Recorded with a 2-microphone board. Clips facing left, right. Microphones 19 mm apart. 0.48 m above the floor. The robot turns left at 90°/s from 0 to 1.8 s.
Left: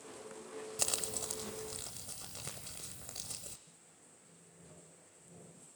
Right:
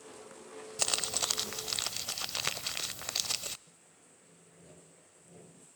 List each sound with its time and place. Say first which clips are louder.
0.8 s crumpling: right 7 dB; 20° right, 0.6 m; by 3.6 s 110° right, 0.6 m
3.7 s sawing: right 1 dB; 45° right (ahead or behind), 3 m